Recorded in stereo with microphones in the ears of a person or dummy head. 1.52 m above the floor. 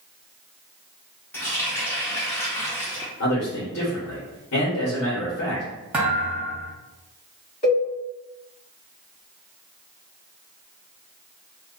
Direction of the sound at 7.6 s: 35° left (ahead or behind).